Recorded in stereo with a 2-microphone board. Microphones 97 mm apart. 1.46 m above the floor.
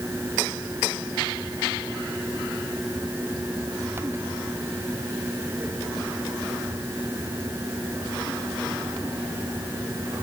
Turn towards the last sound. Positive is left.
No sound to turn to.